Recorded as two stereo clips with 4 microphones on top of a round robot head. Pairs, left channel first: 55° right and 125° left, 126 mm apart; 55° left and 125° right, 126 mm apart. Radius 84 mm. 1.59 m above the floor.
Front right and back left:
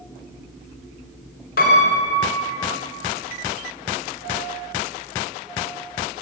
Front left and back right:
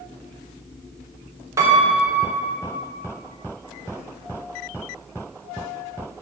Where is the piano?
55° right, 3 m.